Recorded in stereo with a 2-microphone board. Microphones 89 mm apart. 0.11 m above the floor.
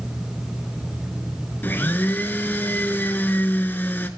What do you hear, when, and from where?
1.6 s a blender: 20° left (ahead or behind), 0.6 m